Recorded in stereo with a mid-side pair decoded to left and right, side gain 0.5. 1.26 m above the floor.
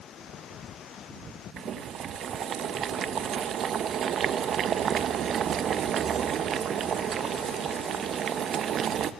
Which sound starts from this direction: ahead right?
Boiling, at 1.6 s.